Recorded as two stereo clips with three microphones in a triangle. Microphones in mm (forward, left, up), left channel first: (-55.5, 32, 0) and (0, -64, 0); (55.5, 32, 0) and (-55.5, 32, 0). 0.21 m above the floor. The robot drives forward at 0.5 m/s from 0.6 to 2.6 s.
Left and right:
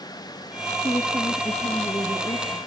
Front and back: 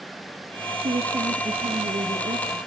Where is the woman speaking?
170° left, 2.5 m; by 2.6 s 175° left, 3 m.